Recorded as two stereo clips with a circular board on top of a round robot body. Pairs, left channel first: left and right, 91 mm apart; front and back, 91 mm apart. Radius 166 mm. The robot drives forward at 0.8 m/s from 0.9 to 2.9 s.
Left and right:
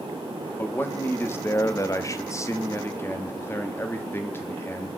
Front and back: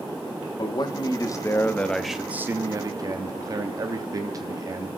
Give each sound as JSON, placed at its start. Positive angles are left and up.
{"t": 0.6, "sound": "a man speaking", "azimuth_deg": 25, "distance_m": 1.3}